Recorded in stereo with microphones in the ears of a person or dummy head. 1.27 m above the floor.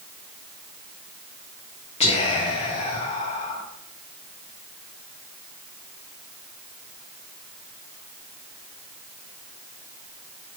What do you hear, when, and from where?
2.0 s whispering: 30° left (ahead or behind), 0.5 m